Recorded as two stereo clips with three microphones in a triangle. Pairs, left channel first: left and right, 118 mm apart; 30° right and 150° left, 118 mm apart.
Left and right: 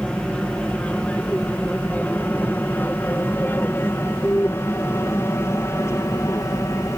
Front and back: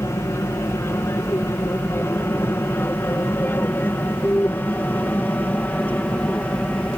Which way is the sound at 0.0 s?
15° left.